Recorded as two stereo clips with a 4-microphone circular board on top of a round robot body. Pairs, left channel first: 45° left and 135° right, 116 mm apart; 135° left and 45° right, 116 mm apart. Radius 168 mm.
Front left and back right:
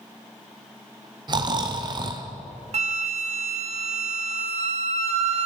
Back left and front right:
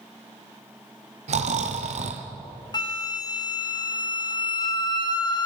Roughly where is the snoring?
Right.